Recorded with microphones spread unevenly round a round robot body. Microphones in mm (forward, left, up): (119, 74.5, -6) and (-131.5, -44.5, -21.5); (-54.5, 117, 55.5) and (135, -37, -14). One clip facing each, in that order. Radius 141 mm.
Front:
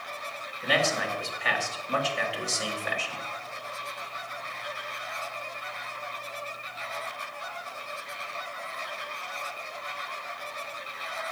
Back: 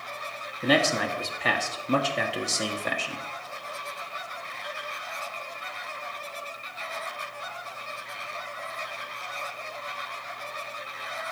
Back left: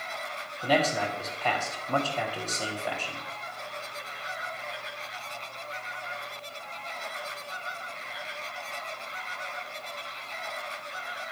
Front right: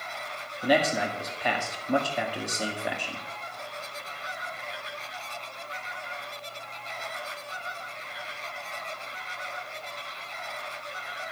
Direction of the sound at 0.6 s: 110° right.